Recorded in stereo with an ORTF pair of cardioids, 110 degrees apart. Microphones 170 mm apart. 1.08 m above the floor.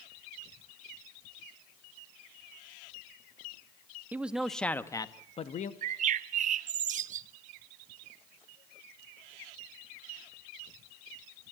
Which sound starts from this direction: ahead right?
A bird, at 5.8 s.